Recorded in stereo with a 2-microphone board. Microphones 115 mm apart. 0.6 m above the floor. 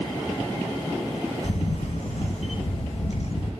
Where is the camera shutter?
70° left (ahead or behind), 1.0 m.